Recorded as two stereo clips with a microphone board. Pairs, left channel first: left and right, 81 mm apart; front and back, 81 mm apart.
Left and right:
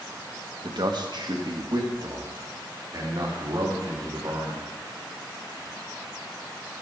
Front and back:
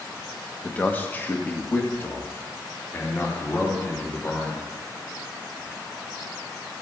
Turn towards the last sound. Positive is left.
turn(degrees=-55)